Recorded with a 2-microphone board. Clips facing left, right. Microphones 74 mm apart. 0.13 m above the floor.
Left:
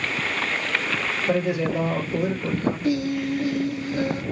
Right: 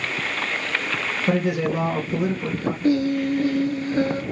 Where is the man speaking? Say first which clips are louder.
Right 1 dB; 65° right (ahead or behind), 3 m.